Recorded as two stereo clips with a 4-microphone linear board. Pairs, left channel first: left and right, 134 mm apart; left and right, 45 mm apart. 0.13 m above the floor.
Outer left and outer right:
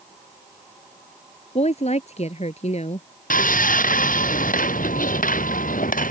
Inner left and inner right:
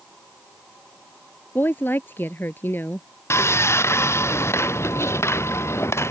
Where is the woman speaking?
55° left (ahead or behind).